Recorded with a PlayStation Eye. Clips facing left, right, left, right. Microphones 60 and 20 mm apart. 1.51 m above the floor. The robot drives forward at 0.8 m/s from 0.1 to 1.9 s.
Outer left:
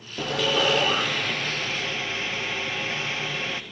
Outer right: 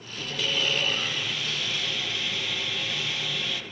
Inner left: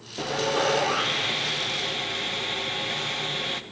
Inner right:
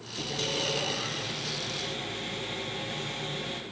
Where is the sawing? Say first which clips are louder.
Outer left 6 dB, inner left 6 dB; 65° left (ahead or behind), 0.8 m; by 3.6 s 35° left (ahead or behind), 1.3 m.